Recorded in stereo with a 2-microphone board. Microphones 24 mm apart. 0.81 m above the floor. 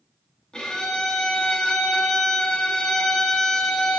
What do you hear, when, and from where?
0.5 s a violin: 30° left (ahead or behind), 0.6 m